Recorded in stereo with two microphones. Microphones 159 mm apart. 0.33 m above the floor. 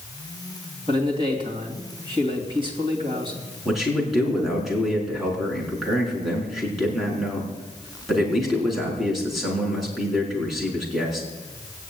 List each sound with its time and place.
0.9 s a man speaking: 30° right (ahead or behind), 3 m
3.6 s a man speaking: centre (ahead or behind), 4.5 m